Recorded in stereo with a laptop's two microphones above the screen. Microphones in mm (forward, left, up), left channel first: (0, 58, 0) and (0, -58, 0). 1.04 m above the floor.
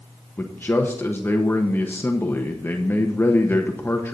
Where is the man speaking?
20° left (ahead or behind), 0.9 m.